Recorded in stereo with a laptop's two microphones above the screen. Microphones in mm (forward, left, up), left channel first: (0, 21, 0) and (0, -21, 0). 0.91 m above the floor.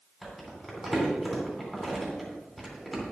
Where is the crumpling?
Centre (ahead or behind), 3 m.